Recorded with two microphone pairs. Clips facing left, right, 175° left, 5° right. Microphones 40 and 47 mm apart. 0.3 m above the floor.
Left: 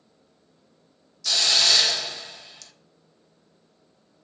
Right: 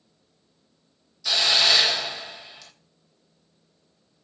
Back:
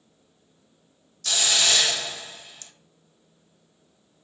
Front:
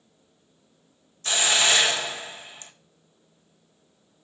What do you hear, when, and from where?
1.2 s a hiss: 35° right, 1.2 m